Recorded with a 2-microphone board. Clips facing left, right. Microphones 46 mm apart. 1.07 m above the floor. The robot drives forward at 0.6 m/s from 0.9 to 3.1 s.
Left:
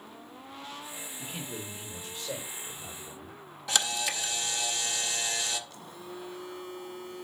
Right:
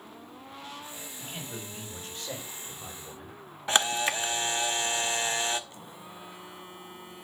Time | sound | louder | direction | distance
1.2 | a man speaking | left 1 dB | 40° right (ahead or behind) | 4 m
3.7 | a camera shutter | right 4 dB | 35° right (ahead or behind) | 0.7 m
5.7 | a phone buzzing | left 2 dB | 25° right (ahead or behind) | 1.4 m